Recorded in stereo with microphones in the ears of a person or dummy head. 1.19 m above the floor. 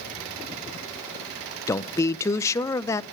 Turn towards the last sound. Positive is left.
turn(degrees=20)  # may be behind; listen again after turning